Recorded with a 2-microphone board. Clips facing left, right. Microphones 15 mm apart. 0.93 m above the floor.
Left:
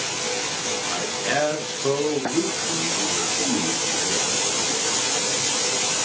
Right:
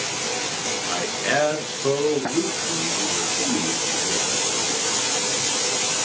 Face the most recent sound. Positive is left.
turn(degrees=30)  # may be behind; listen again after turning